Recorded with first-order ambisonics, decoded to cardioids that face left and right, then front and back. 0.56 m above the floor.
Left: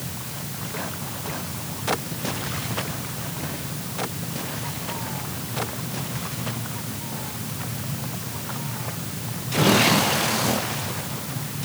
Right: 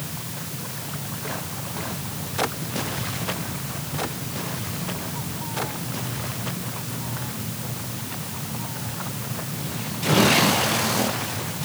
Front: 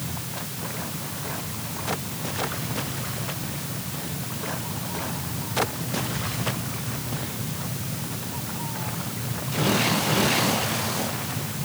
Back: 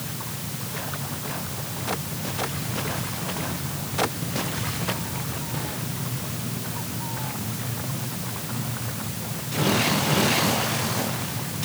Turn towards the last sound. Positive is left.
No sound to turn to.